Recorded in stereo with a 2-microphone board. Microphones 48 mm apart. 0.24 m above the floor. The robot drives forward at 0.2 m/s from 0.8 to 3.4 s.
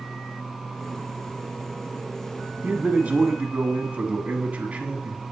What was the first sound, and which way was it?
A man speaking, 35° right (ahead or behind).